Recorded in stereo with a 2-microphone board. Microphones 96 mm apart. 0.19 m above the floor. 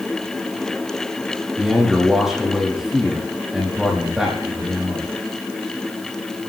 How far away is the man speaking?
About 6.5 m.